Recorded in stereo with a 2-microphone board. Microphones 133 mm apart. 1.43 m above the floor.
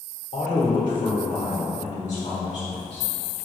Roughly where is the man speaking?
Left.